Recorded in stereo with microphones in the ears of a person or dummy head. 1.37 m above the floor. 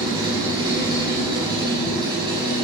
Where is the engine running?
20° right (ahead or behind), 5 m.